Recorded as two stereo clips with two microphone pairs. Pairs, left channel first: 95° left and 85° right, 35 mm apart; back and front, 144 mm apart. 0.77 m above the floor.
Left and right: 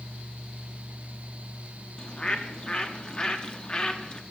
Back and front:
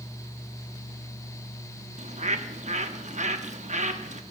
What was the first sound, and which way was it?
A bird, 30° left.